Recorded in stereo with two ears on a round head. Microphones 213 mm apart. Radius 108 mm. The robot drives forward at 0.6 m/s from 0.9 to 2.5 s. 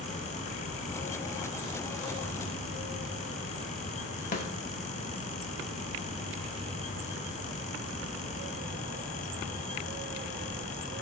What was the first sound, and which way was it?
A snare drum, 35° left (ahead or behind).